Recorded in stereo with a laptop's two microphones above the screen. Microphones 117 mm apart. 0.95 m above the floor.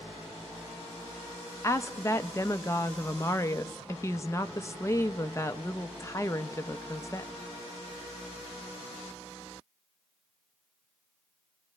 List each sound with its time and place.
1.6 s a woman speaking: 25° left (ahead or behind), 0.6 m